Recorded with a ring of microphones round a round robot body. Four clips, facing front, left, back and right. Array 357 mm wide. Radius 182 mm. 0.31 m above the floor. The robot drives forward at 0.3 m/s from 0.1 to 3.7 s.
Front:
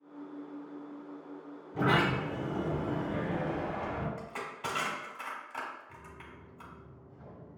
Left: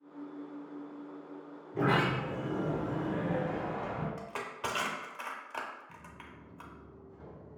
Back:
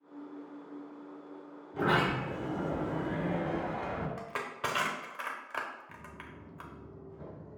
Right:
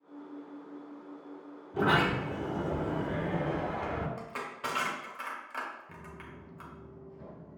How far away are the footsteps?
About 0.8 m.